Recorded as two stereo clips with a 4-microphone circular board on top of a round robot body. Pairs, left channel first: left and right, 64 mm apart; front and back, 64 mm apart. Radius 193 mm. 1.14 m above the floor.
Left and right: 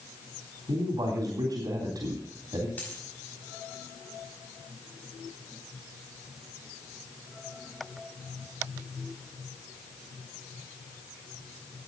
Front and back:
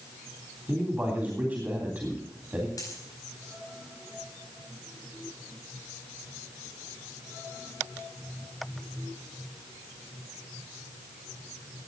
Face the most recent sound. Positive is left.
turn(degrees=25)